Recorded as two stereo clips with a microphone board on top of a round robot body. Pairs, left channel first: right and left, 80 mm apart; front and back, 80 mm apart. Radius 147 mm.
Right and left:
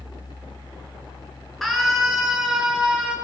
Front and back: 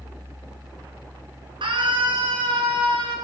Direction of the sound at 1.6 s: Straight behind.